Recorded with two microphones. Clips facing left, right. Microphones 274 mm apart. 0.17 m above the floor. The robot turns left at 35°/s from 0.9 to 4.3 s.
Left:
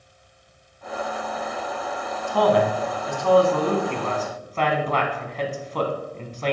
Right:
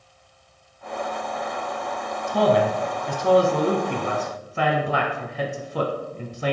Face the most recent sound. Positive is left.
turn(degrees=-10)  # may be behind; listen again after turning